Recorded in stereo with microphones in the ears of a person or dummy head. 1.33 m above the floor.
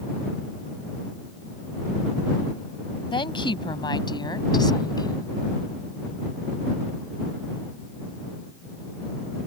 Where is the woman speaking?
35° left (ahead or behind); by 5.3 s 30° left (ahead or behind).